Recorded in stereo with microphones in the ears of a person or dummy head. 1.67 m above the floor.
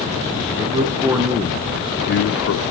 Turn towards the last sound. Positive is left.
turn(degrees=70)  # may be behind; listen again after turning